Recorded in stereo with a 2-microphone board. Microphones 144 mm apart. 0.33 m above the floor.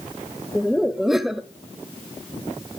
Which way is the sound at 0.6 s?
Centre (ahead or behind).